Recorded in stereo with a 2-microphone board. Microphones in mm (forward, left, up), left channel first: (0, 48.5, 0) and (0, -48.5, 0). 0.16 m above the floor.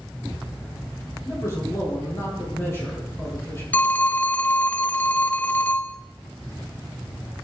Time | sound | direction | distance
1.2 | a man speaking | 30° left (ahead or behind) | 5 m
3.7 | a phone ringing | 20° left (ahead or behind) | 0.6 m